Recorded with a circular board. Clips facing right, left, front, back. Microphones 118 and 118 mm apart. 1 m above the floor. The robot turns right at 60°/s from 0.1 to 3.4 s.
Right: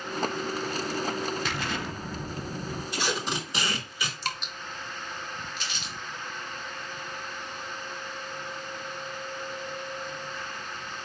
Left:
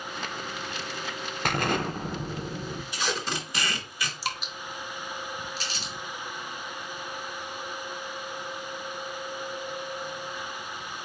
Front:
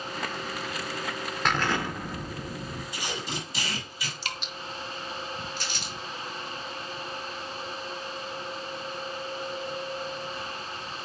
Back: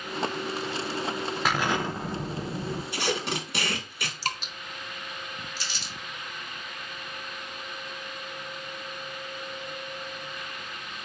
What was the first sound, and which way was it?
An explosion, 95° left.